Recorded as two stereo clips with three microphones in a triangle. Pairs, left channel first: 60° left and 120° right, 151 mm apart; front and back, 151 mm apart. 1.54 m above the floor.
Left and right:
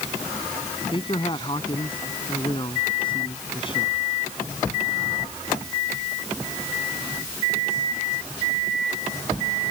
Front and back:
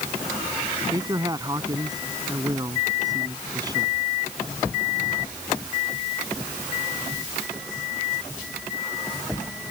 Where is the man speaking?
115° left.